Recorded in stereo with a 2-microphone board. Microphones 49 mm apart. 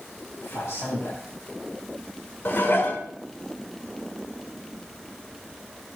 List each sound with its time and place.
0.4 s a man speaking: 70° left (ahead or behind), 4.5 m
2.5 s dishes clattering: 50° left (ahead or behind), 1.4 m